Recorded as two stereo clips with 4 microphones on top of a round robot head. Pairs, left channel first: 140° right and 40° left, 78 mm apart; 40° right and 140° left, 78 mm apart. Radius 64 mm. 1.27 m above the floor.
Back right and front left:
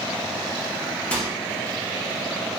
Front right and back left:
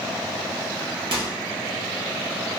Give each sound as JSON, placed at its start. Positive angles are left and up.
{"t": 1.1, "sound": "a microwave", "azimuth_deg": 145, "distance_m": 0.7}